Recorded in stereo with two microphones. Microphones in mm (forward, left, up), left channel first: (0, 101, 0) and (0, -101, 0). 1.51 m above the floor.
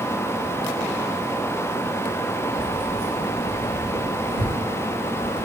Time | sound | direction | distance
2.5 | keys jangling | 25° left (ahead or behind) | 1.2 m